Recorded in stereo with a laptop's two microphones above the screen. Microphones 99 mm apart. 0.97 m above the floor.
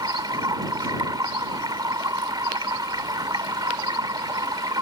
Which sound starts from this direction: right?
Running water, at 0.0 s.